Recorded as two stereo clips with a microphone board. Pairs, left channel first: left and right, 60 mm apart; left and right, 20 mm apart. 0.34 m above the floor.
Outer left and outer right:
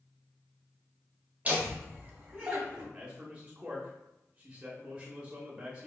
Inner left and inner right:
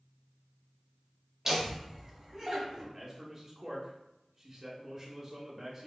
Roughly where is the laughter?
Right.